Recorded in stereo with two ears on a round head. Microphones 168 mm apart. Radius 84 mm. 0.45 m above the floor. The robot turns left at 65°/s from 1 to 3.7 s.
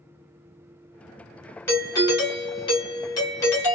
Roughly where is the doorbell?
Centre.